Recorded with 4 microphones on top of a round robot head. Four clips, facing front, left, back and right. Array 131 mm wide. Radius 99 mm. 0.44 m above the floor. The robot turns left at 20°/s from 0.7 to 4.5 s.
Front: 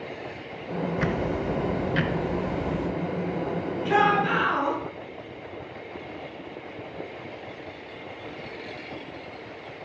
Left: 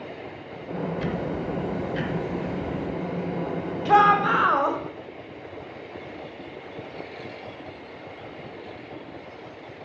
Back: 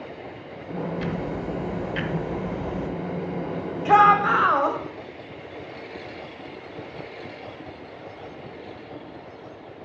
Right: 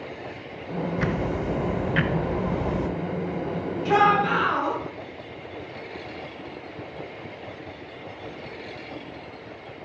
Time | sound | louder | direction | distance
1.0 | ticking | right 2 dB, front 2 dB | 45° right | 0.8 m
3.9 | a shout | left 2 dB, back 6 dB | 155° left | 2.5 m